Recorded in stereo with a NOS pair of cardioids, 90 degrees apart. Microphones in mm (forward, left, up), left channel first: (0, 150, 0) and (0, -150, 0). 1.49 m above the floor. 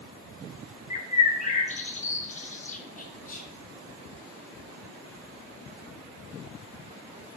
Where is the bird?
25° left, 1.0 m.